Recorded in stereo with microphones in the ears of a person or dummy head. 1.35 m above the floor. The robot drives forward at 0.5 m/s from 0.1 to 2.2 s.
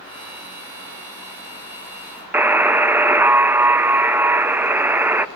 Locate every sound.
2.3 s a buzzer: 5° right (ahead or behind), 0.5 m